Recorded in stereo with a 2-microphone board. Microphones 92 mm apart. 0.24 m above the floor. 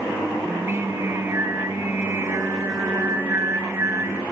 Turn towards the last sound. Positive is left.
turn(degrees=-30)  # may be behind; listen again after turning